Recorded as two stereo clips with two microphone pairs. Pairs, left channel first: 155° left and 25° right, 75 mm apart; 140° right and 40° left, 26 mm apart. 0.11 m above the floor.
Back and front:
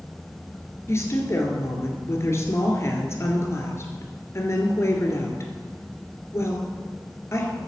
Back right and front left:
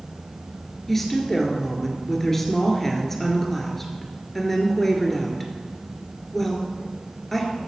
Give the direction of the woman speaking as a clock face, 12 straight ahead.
7 o'clock.